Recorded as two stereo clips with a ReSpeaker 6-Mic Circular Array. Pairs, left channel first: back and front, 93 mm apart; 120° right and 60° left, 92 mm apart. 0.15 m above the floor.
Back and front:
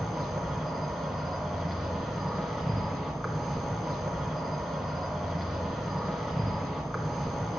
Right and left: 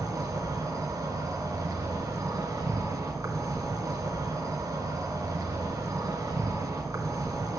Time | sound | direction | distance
0.0 | an insect | 85° left | 1.3 m